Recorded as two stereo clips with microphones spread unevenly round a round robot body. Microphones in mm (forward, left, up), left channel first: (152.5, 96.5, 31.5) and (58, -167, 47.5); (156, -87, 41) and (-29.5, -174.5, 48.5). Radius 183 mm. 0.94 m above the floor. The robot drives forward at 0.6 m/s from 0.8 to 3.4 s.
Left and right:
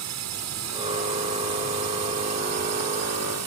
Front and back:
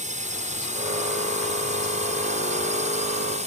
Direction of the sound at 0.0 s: 105° right.